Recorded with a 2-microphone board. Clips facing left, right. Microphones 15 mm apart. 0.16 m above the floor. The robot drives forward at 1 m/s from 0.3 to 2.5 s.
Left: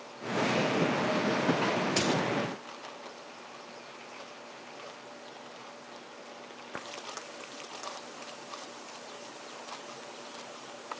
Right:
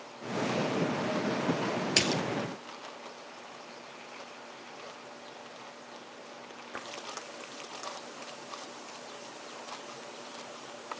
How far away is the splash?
About 1.8 m.